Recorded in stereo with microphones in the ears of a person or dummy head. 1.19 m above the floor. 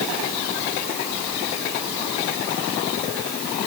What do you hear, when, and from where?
Only background noise.